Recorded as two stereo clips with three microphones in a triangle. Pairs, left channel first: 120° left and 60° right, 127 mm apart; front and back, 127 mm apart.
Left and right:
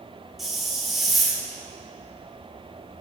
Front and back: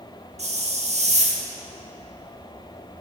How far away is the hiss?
About 0.8 m.